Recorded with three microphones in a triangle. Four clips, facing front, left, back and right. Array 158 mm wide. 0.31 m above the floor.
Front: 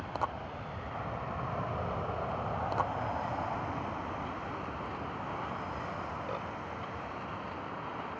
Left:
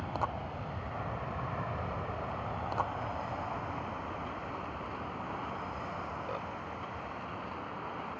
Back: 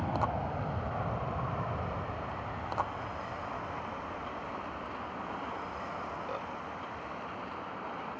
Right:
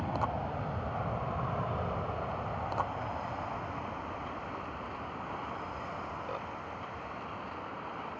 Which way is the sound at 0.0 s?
150° right.